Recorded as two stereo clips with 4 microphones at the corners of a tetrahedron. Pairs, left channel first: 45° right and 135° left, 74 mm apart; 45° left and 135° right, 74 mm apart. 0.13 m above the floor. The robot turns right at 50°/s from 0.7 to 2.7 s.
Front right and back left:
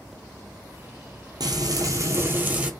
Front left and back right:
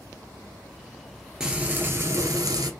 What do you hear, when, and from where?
1.4 s frying: 140° left, 1.4 m; by 2.7 s 155° right, 1.4 m